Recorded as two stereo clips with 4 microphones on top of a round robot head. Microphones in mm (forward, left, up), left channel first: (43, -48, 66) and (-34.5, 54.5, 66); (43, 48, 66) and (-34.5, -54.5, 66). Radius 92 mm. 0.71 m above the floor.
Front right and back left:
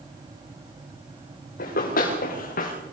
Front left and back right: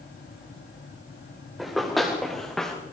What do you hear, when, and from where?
1.6 s running footsteps: 40° right, 8 m; by 2.7 s 35° right, 7 m